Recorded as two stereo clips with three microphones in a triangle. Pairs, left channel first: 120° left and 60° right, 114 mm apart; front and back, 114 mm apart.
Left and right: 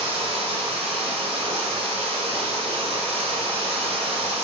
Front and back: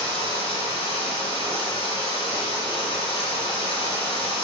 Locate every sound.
0.0 s running water: 30° right, 2.0 m